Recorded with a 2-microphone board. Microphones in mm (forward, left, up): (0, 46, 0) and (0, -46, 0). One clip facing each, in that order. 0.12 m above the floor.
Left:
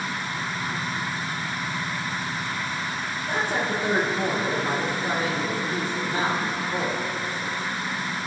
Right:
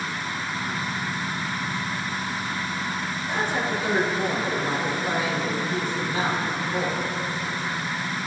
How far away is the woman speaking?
About 4 m.